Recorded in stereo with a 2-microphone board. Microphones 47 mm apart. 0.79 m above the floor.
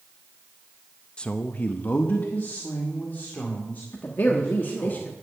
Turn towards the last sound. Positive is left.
turn(degrees=45)  # may be behind; listen again after turning